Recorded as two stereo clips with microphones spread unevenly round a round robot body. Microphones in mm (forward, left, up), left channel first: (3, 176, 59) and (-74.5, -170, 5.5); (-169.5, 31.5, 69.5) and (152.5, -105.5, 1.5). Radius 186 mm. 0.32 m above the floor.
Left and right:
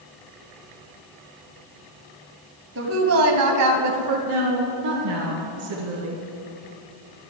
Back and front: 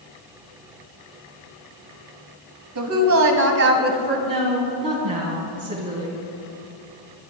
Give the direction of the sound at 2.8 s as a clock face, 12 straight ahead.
2 o'clock.